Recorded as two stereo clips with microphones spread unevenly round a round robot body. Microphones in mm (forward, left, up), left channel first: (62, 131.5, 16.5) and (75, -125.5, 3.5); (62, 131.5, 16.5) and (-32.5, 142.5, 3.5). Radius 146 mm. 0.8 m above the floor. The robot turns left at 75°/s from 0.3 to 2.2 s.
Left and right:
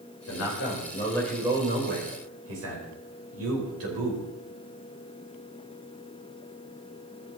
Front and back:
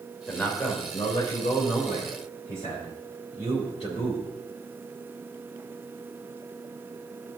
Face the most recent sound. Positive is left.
turn(degrees=-65)